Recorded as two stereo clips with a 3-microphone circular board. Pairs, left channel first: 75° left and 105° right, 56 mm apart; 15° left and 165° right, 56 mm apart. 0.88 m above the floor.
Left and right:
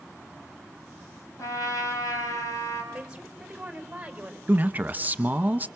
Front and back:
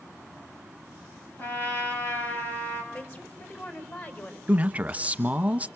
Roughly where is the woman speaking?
Ahead right.